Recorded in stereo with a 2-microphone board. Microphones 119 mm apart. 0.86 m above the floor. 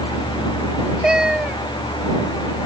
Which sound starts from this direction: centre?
A cat meowing, at 1.0 s.